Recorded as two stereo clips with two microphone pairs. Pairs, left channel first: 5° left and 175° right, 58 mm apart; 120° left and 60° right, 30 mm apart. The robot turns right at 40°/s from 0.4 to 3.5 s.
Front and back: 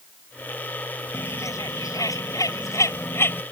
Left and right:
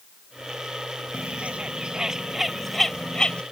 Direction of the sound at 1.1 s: 30° right.